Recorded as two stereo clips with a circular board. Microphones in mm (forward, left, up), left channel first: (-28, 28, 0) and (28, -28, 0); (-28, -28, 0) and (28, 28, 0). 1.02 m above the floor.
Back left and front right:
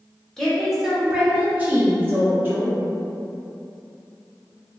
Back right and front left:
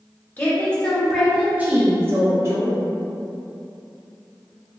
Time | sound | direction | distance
0.4 | a woman speaking | 145° right | 0.8 m